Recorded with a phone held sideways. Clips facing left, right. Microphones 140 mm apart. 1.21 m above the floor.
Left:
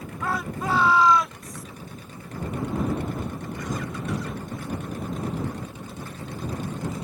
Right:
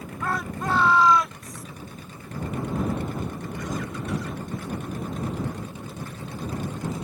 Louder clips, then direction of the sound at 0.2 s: Even; 5° left (ahead or behind).